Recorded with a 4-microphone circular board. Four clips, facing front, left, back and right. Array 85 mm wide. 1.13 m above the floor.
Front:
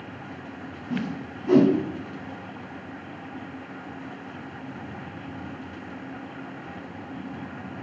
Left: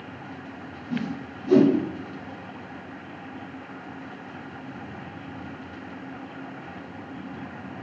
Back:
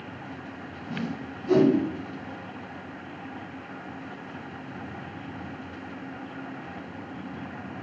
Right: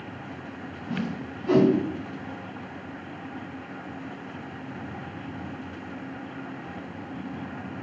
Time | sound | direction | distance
0.9 | a whoosh | 60° right | 2.0 m